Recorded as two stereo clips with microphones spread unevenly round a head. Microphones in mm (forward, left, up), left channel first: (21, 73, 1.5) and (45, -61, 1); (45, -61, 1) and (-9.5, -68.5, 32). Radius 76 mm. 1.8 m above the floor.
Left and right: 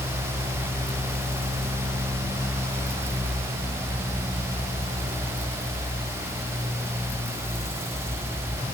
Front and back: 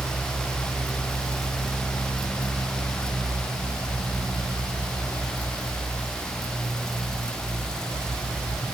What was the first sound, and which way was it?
Only background noise.